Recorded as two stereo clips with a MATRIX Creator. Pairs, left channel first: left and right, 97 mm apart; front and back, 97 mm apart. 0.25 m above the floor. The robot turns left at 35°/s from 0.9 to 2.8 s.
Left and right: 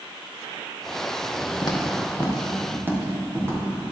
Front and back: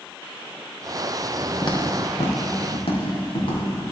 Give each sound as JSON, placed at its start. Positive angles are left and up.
{"t": 1.6, "sound": "footsteps", "azimuth_deg": 45, "distance_m": 1.8}